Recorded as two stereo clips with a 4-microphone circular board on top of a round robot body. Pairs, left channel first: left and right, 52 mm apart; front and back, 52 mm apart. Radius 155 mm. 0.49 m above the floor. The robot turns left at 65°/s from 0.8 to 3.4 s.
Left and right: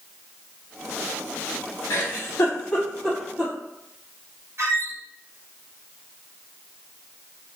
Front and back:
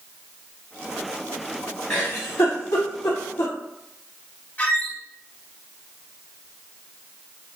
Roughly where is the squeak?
Ahead right.